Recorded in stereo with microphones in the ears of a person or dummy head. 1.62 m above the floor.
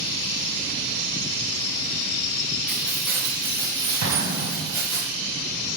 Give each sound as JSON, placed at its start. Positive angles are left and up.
{"t": 2.7, "sound": "keys jangling", "side_deg": 0, "distance_m": 1.5}
{"t": 4.0, "sound": "an explosion", "side_deg": -80, "distance_m": 1.8}